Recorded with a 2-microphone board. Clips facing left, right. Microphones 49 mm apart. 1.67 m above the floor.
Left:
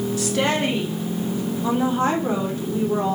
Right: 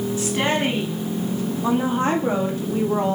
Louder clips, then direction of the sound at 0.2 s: Even; 25° right (ahead or behind).